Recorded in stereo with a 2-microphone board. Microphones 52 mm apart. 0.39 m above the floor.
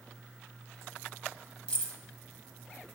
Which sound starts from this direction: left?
Keys jangling, at 1.7 s.